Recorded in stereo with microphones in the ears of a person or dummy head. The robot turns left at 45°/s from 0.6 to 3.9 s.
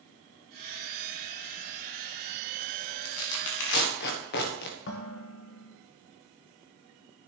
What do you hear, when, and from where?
3.0 s tearing paper: 75° left (ahead or behind), 1.3 m; by 4.8 s 60° left (ahead or behind), 1.3 m
4.9 s dishes clattering: 50° left (ahead or behind), 1.2 m